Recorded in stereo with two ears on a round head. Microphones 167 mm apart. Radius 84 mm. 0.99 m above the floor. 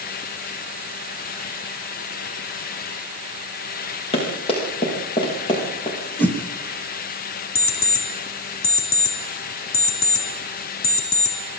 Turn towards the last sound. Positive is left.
turn(degrees=75)  # may be behind; listen again after turning